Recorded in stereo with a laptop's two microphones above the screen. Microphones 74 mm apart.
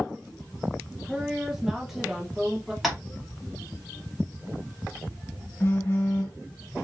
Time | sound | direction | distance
1.0 | a woman speaking | 5° right (ahead or behind) | 1.1 m
2.8 | tapping | centre (ahead or behind) | 1.9 m
5.6 | a phone buzzing | 25° left (ahead or behind) | 2.5 m